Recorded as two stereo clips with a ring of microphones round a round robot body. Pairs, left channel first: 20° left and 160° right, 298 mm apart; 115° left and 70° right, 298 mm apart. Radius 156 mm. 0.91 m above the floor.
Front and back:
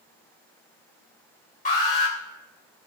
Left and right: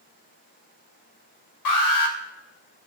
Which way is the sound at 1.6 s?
90° left.